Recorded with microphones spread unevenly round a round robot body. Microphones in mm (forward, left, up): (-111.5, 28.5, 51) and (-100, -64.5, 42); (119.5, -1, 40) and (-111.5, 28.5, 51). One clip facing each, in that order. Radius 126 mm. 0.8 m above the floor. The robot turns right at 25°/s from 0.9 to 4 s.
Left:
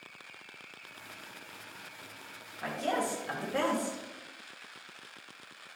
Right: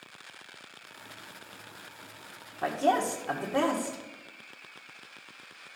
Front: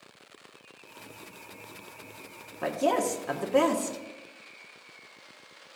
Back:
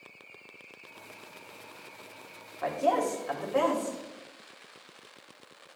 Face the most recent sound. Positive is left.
turn(degrees=-5)